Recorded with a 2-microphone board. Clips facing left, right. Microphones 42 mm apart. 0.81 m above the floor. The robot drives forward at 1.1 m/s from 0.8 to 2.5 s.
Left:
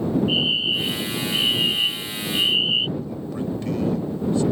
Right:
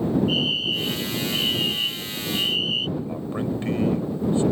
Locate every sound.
0.3 s a fire alarm: 20° left (ahead or behind); by 2.9 s 30° left (ahead or behind)
3.0 s a man speaking: 30° right (ahead or behind)